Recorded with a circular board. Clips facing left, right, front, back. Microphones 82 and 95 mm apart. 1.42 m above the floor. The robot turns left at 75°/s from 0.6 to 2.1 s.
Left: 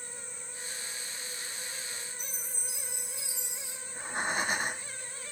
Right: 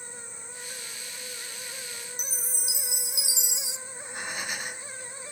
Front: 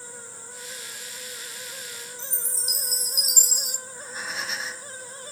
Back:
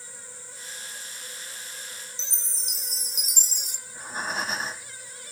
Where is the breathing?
135° left, 1.4 m.